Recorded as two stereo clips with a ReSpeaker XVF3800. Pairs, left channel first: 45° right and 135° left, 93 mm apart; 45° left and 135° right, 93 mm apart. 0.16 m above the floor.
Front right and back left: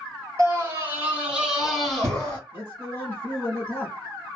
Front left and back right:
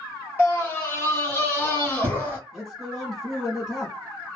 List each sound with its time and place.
0.4 s a scream: 95° left, 1.4 m; by 2.4 s 5° left, 1.1 m
2.5 s a man speaking: 40° right, 1.1 m